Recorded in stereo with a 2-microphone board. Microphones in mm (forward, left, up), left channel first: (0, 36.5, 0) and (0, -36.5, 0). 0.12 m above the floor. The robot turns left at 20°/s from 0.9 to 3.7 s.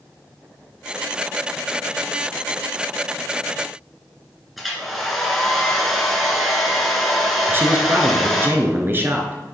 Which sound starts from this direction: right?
A man speaking, at 7.5 s.